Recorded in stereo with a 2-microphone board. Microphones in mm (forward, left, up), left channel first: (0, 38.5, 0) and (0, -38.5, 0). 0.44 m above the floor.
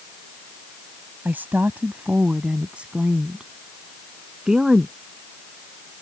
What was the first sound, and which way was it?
A woman speaking, 25° right (ahead or behind).